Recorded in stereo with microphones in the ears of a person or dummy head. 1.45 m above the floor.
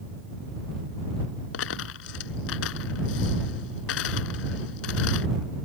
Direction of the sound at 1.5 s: 75° left (ahead or behind).